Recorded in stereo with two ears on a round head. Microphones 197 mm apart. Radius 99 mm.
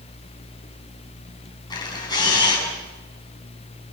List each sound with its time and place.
1.7 s a camera shutter: 20° left (ahead or behind), 7.5 m